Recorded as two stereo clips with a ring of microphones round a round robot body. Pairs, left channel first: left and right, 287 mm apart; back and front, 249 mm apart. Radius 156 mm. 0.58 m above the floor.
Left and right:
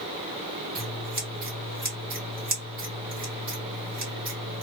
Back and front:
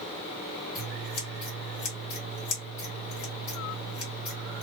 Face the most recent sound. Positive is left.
turn(degrees=-145)